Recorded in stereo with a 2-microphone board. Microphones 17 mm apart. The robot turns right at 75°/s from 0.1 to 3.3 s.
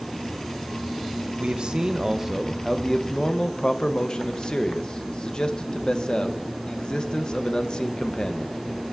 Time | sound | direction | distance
1.4 | a man speaking | 85° right | 0.6 m